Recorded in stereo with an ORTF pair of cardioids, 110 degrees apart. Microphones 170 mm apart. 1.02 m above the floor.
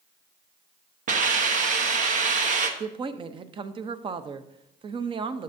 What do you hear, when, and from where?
1.1 s a hiss: 50° right, 1.0 m
2.8 s a woman speaking: 30° right, 0.6 m